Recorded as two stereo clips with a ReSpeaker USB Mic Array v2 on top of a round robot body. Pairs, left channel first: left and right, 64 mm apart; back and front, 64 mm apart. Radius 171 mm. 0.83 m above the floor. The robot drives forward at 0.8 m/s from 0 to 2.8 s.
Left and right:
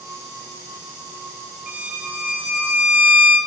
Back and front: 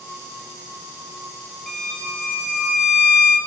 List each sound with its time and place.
1.7 s a violin: 105° right, 1.0 m; by 3.4 s 165° right, 1.4 m